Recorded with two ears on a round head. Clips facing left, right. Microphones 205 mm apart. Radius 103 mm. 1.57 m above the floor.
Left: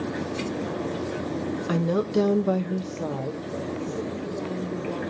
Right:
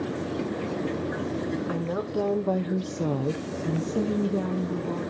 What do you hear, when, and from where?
1.7 s a woman speaking: 50° left (ahead or behind), 1.1 m; by 5.0 s 80° right, 2 m